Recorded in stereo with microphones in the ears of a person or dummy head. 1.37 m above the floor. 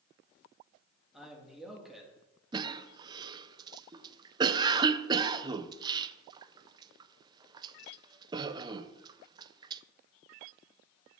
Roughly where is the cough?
Right.